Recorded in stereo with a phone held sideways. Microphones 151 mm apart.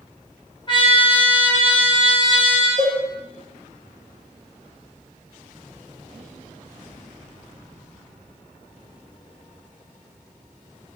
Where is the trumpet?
35° left (ahead or behind), 0.8 m.